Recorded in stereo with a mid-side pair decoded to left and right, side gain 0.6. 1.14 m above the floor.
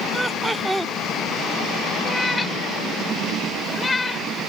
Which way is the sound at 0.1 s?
5° right.